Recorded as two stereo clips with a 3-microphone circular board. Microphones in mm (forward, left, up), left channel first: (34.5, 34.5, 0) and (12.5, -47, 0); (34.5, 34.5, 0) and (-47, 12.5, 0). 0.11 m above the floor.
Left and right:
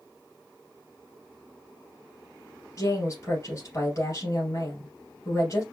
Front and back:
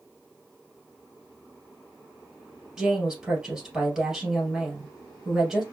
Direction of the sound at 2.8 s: 115° left.